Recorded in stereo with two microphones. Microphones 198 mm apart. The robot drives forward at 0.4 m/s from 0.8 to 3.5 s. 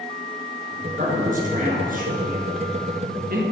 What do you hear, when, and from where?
1.0 s a man speaking: 40° right (ahead or behind), 3.5 m; by 3.4 s 50° right (ahead or behind), 3 m